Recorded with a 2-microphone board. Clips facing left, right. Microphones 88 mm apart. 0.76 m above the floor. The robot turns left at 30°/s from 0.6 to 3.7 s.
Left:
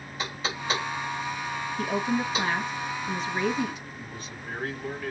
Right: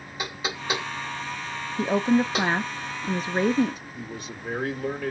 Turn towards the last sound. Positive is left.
turn(degrees=-70)  # may be behind; listen again after turning